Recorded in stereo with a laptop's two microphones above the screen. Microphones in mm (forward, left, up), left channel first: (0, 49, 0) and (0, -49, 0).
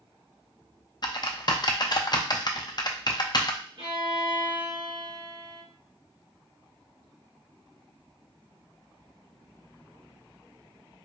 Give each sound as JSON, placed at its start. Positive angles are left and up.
{"t": 1.0, "sound": "typing on a keyboard", "side_deg": 45, "distance_m": 0.6}
{"t": 3.8, "sound": "a violin", "side_deg": -60, "distance_m": 1.7}